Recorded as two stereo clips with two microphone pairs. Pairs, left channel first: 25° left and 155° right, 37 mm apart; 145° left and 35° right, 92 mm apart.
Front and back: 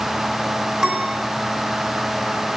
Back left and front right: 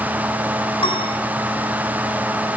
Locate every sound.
0.8 s a piano: 135° left, 2.5 m